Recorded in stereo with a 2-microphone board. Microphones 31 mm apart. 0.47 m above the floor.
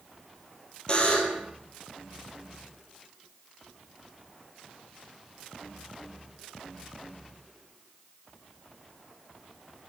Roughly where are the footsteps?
No footsteps in this recording.